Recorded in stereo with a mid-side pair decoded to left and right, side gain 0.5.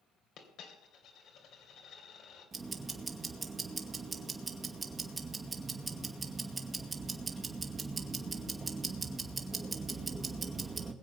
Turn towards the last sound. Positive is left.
turn(degrees=-30)